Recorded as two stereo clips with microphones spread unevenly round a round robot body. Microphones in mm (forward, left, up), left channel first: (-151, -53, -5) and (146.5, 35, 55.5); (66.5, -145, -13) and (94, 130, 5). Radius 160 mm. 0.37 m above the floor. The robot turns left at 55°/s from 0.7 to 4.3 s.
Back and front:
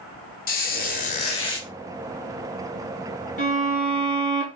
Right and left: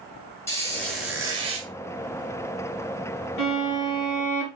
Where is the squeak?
165° right, 1.0 m; by 1.7 s 140° left, 1.0 m.